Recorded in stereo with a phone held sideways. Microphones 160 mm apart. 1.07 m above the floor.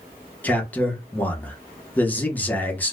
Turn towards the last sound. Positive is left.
turn(degrees=10)  # may be behind; listen again after turning